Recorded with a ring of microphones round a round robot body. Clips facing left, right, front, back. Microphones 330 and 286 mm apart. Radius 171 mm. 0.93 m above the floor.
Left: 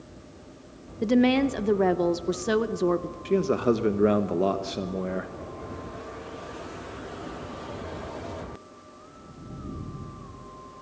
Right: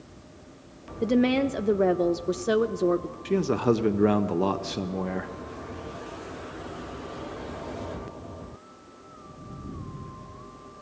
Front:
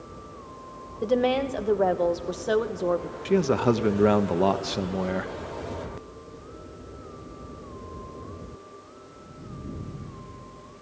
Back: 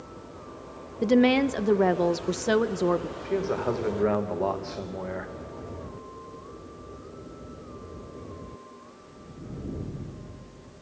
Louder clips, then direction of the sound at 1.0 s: Left 1 dB, back 4 dB; 165° left.